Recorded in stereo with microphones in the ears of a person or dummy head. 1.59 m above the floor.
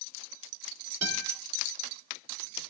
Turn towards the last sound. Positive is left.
turn(degrees=-70)  # may be behind; listen again after turning